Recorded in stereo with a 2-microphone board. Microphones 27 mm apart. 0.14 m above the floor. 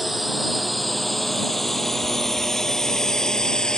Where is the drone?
Centre (ahead or behind); by 3.8 s 30° left (ahead or behind).